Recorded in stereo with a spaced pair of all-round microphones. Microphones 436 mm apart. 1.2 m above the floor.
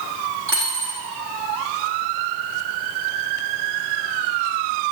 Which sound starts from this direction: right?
A dropped coin, at 0.5 s.